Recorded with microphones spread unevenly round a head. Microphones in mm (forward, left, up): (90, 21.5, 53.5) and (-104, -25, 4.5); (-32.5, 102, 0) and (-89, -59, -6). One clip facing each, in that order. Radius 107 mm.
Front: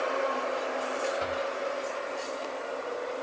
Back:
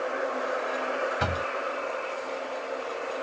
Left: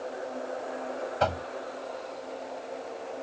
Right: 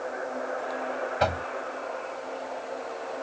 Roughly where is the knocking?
Behind.